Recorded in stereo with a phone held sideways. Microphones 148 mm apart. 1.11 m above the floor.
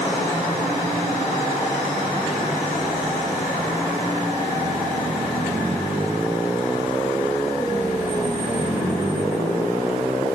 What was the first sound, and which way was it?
Only background noise.